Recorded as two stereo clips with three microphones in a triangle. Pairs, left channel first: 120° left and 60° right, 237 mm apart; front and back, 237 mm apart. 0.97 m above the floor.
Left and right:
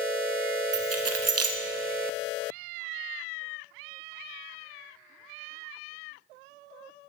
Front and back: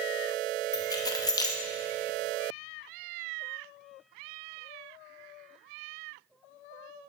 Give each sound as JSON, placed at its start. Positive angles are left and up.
{"t": 0.7, "sound": "keys jangling", "azimuth_deg": -75, "distance_m": 0.6}